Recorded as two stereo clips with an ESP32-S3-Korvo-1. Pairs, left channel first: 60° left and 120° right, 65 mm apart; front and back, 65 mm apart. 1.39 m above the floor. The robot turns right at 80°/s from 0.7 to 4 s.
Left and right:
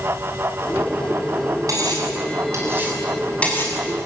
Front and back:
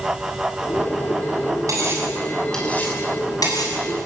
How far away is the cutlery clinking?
About 6 m.